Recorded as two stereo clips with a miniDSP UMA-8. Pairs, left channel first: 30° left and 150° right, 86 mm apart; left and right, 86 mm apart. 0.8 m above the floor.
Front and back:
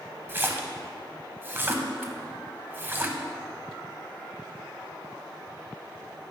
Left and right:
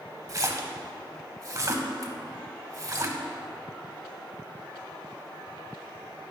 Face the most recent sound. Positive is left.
turn(degrees=-100)